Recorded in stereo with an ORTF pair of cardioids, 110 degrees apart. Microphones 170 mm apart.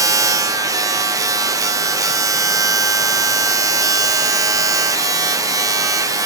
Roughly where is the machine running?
Ahead.